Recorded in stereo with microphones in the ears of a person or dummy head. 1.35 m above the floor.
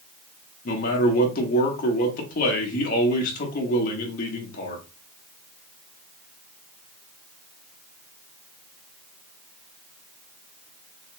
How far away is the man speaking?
About 1.3 m.